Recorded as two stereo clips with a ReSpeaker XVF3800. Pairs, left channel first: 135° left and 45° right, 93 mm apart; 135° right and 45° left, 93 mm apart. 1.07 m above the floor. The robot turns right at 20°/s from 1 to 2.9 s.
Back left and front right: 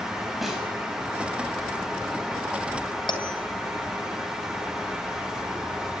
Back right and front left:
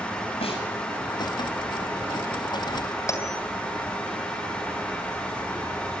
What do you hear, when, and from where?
0.4 s a snare drum: 135° right, 8 m
3.1 s a bell: 165° left, 3 m